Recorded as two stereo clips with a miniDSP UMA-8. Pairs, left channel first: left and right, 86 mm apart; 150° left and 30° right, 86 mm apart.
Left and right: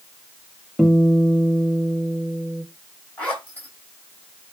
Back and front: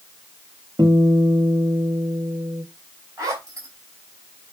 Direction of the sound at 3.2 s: 20° left.